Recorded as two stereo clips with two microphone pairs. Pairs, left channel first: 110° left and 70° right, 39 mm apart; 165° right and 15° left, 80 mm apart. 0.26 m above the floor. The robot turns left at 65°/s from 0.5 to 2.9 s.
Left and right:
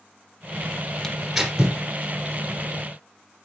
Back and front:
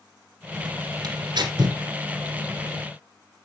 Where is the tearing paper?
40° left, 2.0 m; by 1.8 s 5° right, 2.0 m.